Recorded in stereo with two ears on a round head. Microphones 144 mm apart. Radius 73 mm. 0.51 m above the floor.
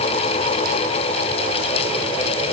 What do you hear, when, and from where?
Only background noise.